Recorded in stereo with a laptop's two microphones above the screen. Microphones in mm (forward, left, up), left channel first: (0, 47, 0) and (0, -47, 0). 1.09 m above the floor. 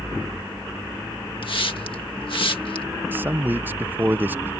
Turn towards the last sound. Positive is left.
turn(degrees=-20)  # may be behind; listen again after turning